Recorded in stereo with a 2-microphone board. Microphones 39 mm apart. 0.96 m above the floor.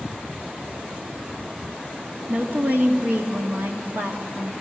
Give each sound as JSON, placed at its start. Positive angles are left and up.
{"t": 2.3, "sound": "a woman speaking", "side_deg": -60, "distance_m": 2.0}